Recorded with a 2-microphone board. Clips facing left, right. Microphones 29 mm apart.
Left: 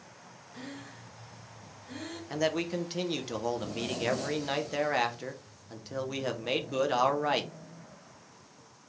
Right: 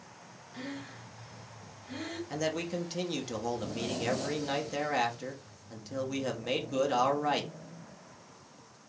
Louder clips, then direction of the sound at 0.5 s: Right 3 dB; 20° right (ahead or behind).